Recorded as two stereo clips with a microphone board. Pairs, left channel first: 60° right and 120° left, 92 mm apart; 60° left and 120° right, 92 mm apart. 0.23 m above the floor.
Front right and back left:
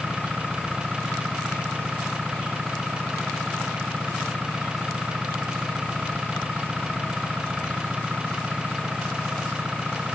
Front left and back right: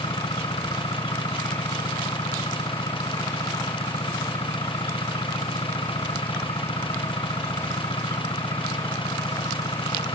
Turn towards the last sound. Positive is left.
turn(degrees=40)